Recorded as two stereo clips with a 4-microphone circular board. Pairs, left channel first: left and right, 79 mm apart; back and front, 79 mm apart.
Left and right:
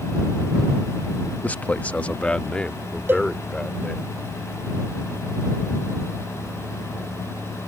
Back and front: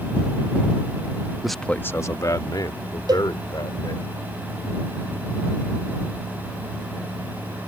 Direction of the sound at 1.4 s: 75° left.